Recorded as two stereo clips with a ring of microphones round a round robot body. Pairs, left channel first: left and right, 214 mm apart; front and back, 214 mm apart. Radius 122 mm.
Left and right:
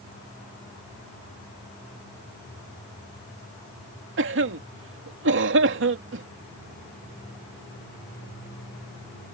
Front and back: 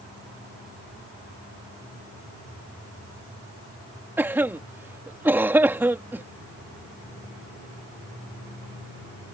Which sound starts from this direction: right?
A cough, at 4.2 s.